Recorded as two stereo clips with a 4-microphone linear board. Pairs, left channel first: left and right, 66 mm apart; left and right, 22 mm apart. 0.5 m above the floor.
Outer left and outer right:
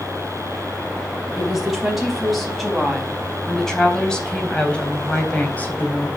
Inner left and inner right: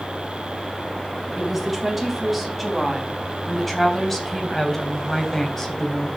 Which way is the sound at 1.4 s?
5° right (ahead or behind).